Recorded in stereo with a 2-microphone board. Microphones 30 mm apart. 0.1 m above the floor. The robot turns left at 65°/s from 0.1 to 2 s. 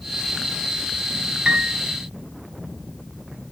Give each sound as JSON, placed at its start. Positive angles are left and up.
{"t": 1.4, "sound": "a piano", "side_deg": -35, "distance_m": 1.8}